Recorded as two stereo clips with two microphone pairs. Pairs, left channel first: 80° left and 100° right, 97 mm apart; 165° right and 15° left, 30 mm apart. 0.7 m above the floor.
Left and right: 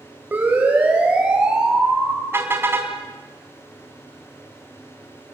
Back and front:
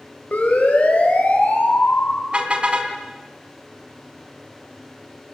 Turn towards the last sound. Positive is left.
turn(degrees=-35)